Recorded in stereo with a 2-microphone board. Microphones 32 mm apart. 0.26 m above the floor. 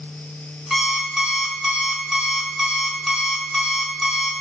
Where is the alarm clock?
Centre (ahead or behind), 1.0 m.